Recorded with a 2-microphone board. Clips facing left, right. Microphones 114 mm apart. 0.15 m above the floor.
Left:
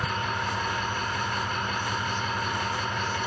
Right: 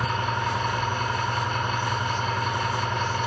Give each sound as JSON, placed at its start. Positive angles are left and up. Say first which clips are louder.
{"t": 0.0, "sound": "an engine running", "louder": "right 3 dB", "side_deg": -60, "distance_m": 4.5}